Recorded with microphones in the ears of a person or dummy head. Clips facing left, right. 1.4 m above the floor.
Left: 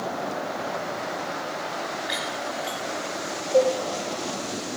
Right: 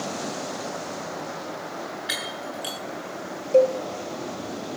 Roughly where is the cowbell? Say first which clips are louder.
Right 2 dB; right.